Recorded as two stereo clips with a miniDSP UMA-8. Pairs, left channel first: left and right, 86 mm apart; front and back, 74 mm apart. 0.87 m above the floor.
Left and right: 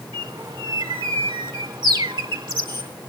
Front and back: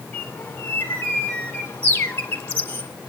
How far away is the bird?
About 3 m.